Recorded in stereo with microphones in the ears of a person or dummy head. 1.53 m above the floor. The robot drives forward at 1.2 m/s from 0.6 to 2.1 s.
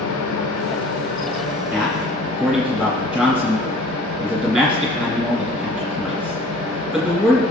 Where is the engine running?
85° left, 1.3 m; by 7.5 s 35° left (ahead or behind), 2.5 m.